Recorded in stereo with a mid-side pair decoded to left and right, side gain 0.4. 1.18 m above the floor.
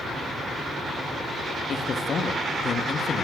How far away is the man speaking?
About 1.4 m.